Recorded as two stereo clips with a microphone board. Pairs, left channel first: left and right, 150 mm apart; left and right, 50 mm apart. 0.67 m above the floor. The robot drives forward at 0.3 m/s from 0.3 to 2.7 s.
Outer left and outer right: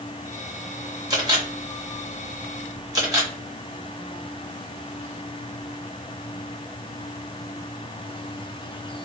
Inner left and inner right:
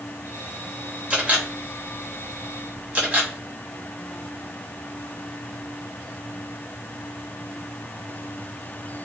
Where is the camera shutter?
25° right (ahead or behind), 1.1 m.